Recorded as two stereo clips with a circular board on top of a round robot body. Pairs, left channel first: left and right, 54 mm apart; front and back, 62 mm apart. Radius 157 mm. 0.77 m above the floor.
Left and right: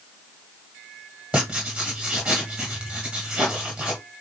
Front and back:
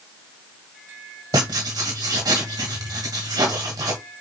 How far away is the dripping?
No dripping in this recording.